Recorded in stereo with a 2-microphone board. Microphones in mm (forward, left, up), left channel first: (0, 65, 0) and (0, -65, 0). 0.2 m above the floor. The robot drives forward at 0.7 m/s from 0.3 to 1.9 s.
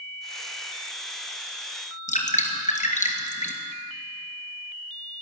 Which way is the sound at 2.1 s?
70° left (ahead or behind).